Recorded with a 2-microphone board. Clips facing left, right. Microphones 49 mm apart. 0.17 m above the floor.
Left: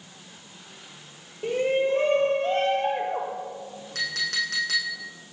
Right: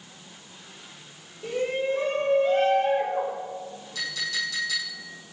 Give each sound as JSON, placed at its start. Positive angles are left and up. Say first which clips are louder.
{"t": 1.4, "sound": "a shout", "louder": "left 3 dB", "side_deg": 40, "distance_m": 4.0}
{"t": 4.0, "sound": "a clink", "louder": "left 3 dB", "side_deg": 55, "distance_m": 5.5}